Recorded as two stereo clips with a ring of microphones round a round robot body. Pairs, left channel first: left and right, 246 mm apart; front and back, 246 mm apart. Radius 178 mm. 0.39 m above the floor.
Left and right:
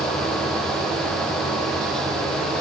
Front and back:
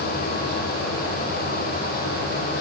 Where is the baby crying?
No baby crying in this recording.